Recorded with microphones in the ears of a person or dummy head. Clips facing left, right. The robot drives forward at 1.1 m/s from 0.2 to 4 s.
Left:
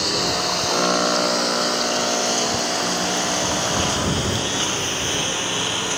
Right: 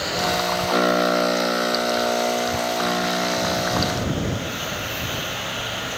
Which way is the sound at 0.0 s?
65° left (ahead or behind).